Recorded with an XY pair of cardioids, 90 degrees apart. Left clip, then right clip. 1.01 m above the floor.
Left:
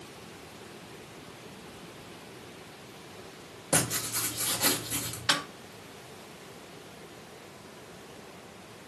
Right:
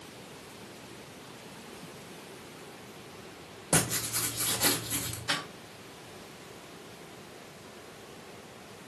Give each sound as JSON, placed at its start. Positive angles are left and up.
{"t": 3.7, "sound": "writing", "azimuth_deg": -15, "distance_m": 1.3}
{"t": 5.3, "sound": "a snare drum", "azimuth_deg": 70, "distance_m": 1.0}